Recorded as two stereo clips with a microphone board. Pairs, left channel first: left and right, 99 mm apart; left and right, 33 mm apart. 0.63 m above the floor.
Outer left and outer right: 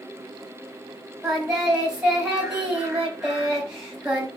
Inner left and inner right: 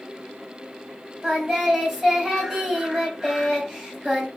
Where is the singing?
5° right (ahead or behind), 3.5 m.